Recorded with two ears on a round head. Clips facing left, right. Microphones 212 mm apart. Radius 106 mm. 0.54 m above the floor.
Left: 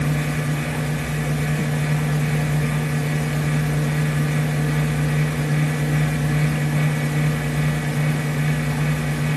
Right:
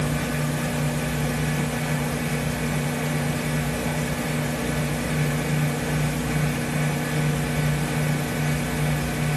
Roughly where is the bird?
I don't hear a bird.